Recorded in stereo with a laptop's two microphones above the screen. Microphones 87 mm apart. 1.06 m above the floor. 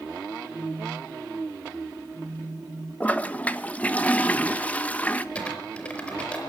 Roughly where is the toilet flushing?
Centre.